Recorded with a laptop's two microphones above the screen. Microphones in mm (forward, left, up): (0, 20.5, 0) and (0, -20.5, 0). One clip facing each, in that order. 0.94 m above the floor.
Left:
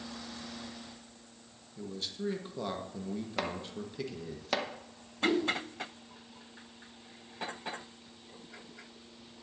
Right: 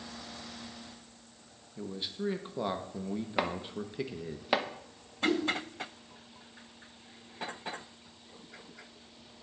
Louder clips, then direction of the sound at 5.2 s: Even; 25° left (ahead or behind).